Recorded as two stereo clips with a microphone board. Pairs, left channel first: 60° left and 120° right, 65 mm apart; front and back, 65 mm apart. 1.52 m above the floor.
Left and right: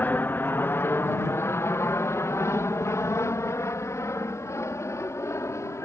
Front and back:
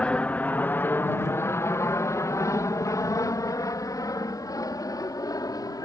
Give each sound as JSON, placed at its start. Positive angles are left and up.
{"t": 0.0, "sound": "an aircraft", "azimuth_deg": 50}